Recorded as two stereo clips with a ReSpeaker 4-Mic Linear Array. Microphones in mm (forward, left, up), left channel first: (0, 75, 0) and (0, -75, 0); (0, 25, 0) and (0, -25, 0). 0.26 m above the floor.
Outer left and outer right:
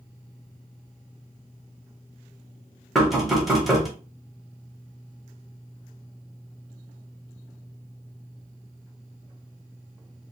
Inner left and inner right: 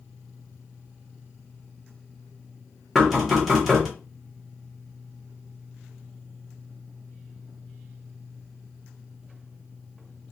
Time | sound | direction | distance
3.0 | knocking | centre (ahead or behind) | 0.9 m